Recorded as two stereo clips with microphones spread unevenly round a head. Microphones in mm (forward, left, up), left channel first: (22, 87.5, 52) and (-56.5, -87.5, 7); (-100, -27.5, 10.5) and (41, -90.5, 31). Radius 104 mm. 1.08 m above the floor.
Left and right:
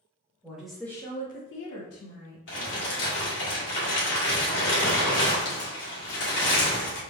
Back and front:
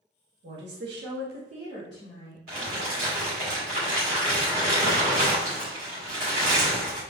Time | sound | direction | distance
0.4 | a woman speaking | 35° right | 1.9 m
2.5 | crumpling | 25° left | 2 m